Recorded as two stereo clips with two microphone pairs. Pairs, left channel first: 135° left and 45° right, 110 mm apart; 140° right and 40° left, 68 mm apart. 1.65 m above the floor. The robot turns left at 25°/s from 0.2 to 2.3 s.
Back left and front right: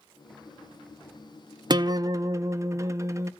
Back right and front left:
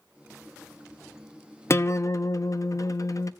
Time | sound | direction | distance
1.7 | a guitar | 90° right | 0.6 m